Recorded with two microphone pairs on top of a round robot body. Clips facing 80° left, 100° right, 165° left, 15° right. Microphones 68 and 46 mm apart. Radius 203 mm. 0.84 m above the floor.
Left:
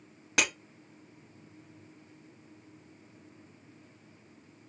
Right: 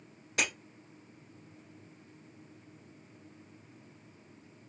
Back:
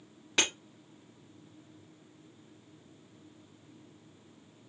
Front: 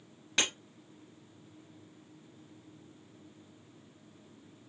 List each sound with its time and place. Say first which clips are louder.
0.4 s breaking glass: left 3 dB, back 2 dB; 80° left, 1.3 m